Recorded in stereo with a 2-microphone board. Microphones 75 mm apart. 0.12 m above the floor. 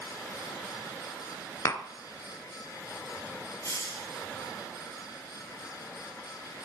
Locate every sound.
1.6 s tapping: 45° left (ahead or behind), 0.9 m
3.6 s a hiss: 55° left (ahead or behind), 9 m